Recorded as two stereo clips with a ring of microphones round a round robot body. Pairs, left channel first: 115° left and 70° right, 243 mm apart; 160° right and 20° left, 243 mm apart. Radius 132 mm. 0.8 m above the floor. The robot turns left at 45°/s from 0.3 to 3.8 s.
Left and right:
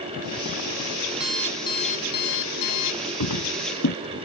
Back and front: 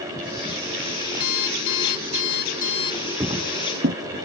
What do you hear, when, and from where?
1.2 s an alarm clock: 155° right; by 3.1 s 120° left
3.2 s footsteps: 100° left; by 4.0 s 75° left